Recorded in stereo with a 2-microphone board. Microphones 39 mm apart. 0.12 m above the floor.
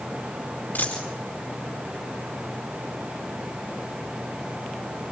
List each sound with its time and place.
0.8 s a dropped coin: 55° left (ahead or behind), 5 m